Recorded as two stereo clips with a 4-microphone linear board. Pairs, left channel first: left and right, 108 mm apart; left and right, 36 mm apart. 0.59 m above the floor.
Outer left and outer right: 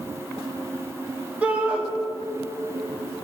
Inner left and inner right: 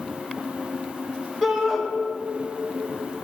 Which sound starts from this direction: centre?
A shout, at 1.4 s.